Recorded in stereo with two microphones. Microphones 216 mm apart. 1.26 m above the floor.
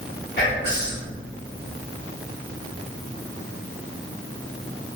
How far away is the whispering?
About 1.4 m.